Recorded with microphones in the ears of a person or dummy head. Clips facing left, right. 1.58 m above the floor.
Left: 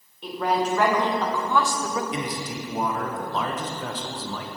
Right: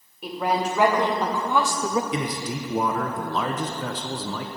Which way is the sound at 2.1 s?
65° right (ahead or behind).